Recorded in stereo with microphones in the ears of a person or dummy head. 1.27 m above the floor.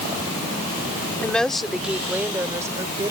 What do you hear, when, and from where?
1.2 s a woman speaking: 5° left (ahead or behind); by 3.1 s 20° right (ahead or behind)